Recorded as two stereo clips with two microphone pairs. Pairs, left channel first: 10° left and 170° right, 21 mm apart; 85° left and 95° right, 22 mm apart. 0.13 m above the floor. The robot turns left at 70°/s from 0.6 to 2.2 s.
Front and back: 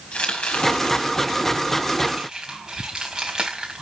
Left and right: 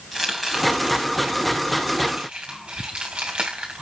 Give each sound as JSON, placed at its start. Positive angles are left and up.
{"t": 0.1, "sound": "chopping", "azimuth_deg": -5, "distance_m": 3.5}